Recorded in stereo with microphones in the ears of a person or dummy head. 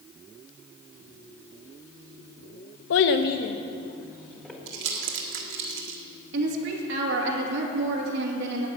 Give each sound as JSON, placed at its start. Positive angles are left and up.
{"t": 2.9, "sound": "a child speaking", "side_deg": 80, "distance_m": 0.8}
{"t": 4.7, "sound": "crumpling", "side_deg": -60, "distance_m": 1.4}
{"t": 6.3, "sound": "a woman speaking", "side_deg": -70, "distance_m": 2.0}